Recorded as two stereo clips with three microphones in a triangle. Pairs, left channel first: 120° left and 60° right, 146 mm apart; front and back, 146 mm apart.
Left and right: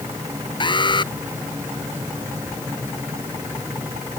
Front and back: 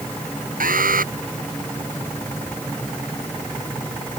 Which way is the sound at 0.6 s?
175° left.